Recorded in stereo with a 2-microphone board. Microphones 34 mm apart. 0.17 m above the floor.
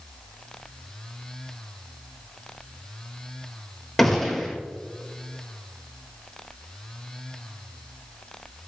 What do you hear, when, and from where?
4.0 s a gunshot: 10° left (ahead or behind), 0.5 m